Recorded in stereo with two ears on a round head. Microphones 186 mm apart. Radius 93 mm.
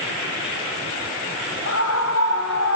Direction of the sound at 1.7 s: 65° left (ahead or behind).